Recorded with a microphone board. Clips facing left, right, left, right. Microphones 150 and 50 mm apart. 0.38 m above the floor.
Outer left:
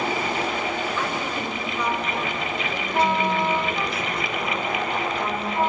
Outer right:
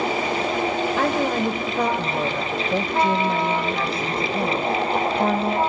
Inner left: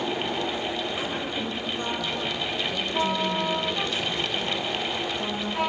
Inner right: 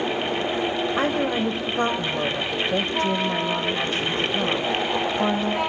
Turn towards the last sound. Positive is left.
turn(degrees=-55)  # may be behind; listen again after turning